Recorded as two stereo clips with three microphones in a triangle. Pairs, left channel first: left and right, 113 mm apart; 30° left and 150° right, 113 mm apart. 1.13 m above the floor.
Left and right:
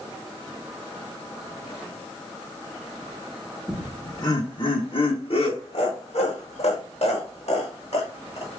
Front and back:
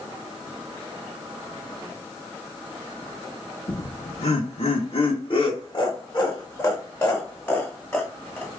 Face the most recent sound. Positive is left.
turn(degrees=115)